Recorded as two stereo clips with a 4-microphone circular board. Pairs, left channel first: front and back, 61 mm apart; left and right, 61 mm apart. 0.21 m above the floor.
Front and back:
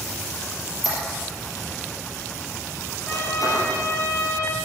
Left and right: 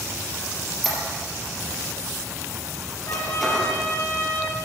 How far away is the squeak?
About 4 m.